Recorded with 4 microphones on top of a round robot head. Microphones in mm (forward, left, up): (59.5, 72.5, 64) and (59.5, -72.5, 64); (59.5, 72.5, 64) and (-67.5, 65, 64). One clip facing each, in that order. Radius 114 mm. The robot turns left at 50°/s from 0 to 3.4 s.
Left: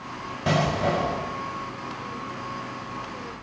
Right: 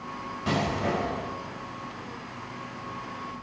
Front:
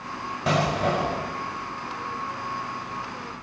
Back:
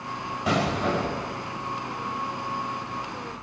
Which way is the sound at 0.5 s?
55° left.